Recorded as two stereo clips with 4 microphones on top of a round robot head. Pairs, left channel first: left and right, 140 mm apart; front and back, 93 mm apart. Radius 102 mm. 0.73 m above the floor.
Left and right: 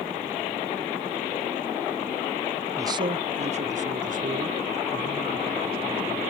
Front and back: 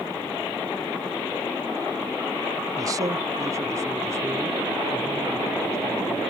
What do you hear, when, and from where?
2.8 s a man speaking: 150° right; by 6.2 s 110° right